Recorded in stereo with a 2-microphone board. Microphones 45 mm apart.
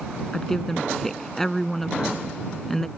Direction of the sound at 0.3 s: 10° left (ahead or behind).